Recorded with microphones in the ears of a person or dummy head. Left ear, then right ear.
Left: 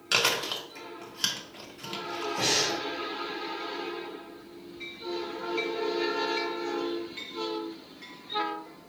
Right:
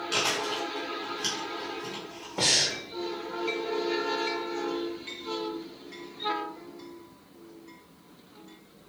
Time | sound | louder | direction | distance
0.1 | chewing | left 3 dB | 40° left (ahead or behind) | 0.7 m
2.4 | breathing | right 3 dB | 65° right (ahead or behind) | 0.9 m